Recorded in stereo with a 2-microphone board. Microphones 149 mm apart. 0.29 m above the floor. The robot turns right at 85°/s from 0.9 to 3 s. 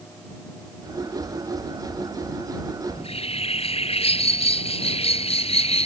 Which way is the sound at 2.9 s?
30° left (ahead or behind).